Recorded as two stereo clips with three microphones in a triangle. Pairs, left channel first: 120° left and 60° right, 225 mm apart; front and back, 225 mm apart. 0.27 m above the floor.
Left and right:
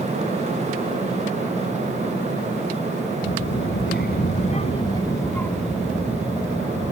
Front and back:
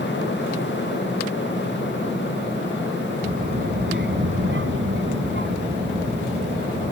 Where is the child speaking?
135° left; by 6.9 s 130° right.